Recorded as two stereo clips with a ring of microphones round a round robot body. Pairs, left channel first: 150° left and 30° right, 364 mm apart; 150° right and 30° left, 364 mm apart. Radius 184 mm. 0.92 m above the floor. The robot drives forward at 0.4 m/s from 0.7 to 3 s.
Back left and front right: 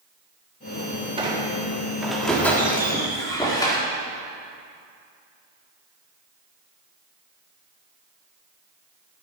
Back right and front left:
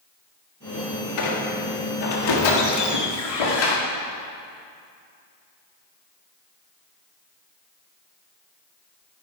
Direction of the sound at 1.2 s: 105° right.